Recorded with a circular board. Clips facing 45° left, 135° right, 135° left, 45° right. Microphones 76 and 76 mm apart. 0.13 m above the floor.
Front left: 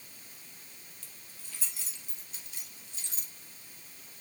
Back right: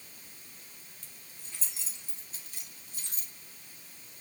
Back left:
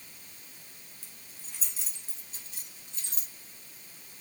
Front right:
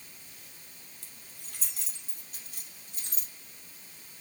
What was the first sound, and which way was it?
Keys jangling, 60° right.